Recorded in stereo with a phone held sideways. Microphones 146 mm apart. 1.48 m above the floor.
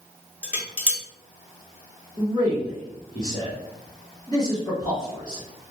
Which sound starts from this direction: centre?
Dishes clattering, at 0.4 s.